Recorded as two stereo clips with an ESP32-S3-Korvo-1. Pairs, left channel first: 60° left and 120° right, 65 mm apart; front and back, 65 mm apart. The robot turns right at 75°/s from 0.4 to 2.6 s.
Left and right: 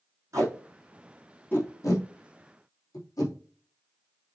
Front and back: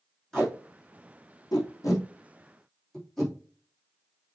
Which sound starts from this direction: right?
Tape being pulled, at 0.3 s.